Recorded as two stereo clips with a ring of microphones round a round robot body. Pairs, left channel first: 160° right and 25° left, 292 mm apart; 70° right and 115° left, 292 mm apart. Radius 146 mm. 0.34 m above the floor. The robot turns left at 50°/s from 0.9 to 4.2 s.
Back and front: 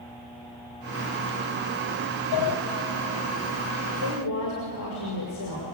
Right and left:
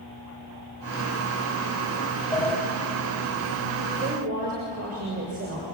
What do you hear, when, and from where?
2.3 s a sliding door: 145° right, 2 m; by 2.6 s 160° right, 2 m
3.9 s a woman speaking: 170° right, 6 m; by 5.8 s 175° left, 6 m